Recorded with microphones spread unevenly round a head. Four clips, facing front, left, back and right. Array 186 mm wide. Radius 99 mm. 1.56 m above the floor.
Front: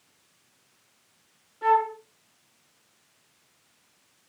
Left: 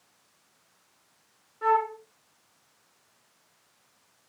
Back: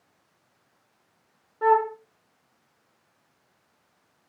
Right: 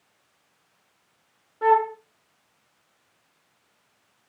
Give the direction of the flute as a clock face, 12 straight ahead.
5 o'clock.